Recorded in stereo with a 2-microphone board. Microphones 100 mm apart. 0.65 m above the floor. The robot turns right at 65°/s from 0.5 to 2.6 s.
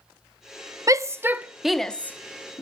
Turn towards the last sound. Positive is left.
turn(degrees=35)  # may be behind; listen again after turning